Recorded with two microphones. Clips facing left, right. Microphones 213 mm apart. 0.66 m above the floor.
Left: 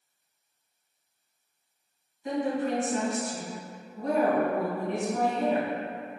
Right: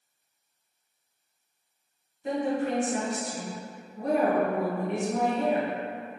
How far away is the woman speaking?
About 1.8 m.